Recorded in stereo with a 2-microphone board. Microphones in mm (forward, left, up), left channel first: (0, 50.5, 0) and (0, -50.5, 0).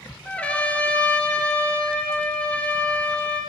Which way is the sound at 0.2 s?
15° left (ahead or behind).